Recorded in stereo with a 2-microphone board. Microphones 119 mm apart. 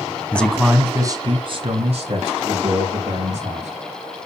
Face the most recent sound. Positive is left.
turn(degrees=-80)